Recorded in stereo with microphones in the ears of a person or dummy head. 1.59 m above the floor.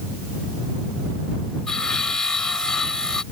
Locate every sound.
1.7 s sawing: centre (ahead or behind)